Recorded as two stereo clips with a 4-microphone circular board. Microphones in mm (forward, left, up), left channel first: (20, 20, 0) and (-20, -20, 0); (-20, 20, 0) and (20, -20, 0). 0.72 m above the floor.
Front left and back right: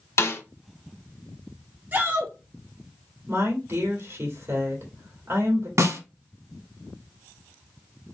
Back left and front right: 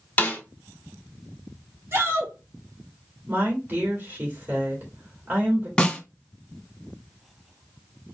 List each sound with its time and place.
0.2 s a snare drum: 75° left, 1.1 m
1.9 s a shout: 80° right, 1.7 m
3.3 s a woman speaking: 95° right, 2 m
5.8 s a snare drum: 150° right, 1.1 m